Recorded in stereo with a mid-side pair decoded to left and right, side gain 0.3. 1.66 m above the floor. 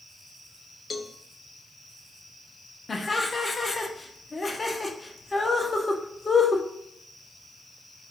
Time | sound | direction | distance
0.9 | a cowbell | 50° left | 0.7 m
2.9 | laughter | 35° left | 1.0 m